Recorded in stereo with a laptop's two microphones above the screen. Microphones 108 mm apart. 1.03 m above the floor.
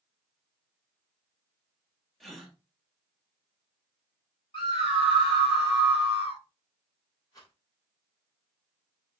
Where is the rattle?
35° left (ahead or behind), 3 m.